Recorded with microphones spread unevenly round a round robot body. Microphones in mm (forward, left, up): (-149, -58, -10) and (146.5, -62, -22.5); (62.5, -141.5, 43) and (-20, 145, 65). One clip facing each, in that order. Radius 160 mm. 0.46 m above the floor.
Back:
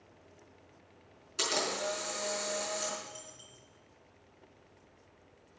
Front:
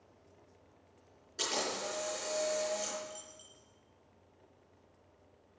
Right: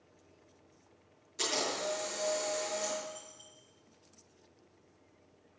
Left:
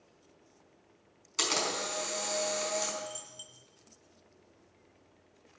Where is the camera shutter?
105° left, 4.5 m.